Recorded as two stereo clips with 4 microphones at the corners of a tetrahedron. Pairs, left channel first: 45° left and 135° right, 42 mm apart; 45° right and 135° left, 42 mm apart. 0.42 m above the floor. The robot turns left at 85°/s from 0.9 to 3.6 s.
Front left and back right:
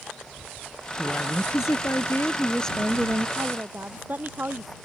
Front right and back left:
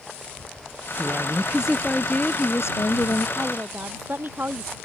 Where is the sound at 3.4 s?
160° right; by 4.8 s straight behind.